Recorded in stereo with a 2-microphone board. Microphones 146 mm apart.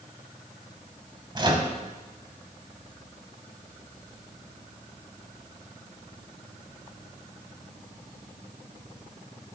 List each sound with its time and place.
1.4 s a microwave: 30° right (ahead or behind), 1.2 m